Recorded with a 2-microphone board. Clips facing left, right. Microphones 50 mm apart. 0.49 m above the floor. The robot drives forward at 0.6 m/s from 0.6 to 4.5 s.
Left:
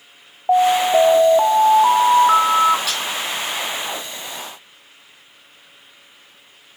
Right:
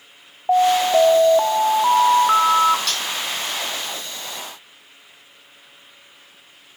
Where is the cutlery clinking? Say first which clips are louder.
Left 1 dB; 5° left (ahead or behind), 1.7 m.